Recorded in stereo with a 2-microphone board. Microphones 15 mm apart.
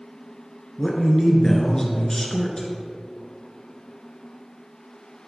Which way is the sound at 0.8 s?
35° left (ahead or behind).